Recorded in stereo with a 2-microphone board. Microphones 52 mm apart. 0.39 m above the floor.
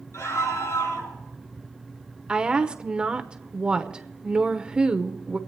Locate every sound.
0.1 s a scream: 75° left (ahead or behind), 7 m
2.3 s a woman speaking: 20° right (ahead or behind), 0.8 m